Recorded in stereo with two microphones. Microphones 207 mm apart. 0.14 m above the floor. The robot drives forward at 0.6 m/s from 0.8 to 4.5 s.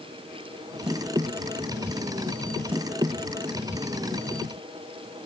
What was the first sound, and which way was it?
Only background noise.